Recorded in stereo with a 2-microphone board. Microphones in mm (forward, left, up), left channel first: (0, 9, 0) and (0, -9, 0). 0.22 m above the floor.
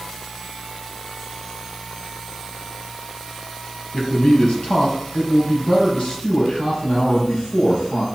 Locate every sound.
3.9 s a man speaking: 65° left (ahead or behind), 4.5 m